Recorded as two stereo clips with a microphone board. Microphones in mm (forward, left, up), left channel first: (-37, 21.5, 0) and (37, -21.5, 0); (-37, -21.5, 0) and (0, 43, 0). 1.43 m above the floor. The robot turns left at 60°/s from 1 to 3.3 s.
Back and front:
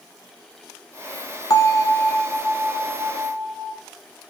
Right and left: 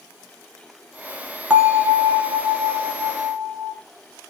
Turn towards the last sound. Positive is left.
turn(degrees=15)